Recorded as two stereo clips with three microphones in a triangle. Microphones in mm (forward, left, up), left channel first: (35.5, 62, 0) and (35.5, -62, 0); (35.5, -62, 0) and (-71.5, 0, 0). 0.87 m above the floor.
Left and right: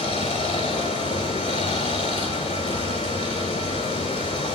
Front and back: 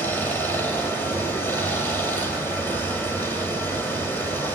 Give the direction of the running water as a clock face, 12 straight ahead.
11 o'clock.